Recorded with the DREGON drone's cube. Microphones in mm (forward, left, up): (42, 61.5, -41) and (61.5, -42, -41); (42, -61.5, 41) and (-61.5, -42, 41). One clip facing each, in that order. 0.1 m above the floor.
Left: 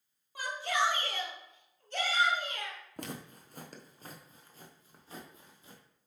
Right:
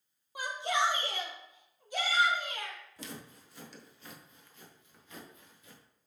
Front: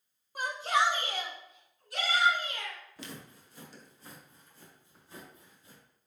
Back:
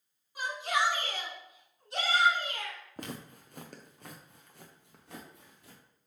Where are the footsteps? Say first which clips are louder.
Left 3 dB, back 4 dB; 135° left, 1.1 m; by 5.8 s 160° left, 2.5 m.